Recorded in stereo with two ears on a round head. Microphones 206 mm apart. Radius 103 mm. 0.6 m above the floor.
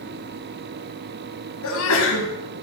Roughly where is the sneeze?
Left.